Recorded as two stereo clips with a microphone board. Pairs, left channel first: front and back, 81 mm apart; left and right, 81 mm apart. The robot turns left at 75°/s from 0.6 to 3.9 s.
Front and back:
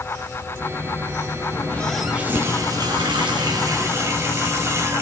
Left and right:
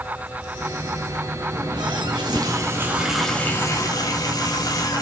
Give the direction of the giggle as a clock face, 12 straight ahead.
No giggle in this recording.